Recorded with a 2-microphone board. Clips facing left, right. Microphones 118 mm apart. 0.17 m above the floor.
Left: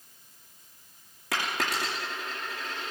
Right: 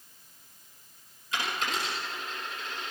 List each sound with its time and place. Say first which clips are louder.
1.3 s a dropped coin: left 2 dB; 80° left, 7 m